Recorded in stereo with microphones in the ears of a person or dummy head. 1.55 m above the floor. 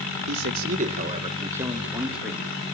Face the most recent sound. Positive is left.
turn(degrees=10)  # may be behind; listen again after turning